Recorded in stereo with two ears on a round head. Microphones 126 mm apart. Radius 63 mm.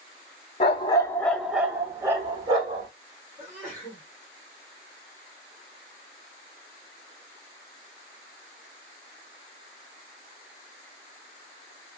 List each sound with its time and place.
0.6 s a dog barking: 45° left (ahead or behind), 0.6 m; by 2.9 s 30° right (ahead or behind), 1.4 m
3.4 s a sneeze: 10° left (ahead or behind), 2 m